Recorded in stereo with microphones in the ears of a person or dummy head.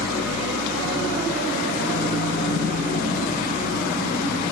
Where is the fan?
45° left (ahead or behind), 1.4 m.